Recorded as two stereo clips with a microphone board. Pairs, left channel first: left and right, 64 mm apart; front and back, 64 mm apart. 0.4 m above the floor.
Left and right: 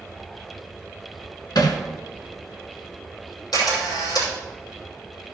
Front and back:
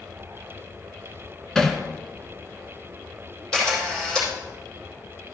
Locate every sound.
1.6 s hammering: 80° left, 1.0 m
3.5 s a camera shutter: 80° left, 5 m